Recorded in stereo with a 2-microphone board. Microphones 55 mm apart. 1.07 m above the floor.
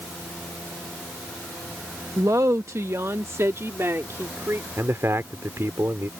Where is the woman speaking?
75° right (ahead or behind); by 4.7 s 55° right (ahead or behind).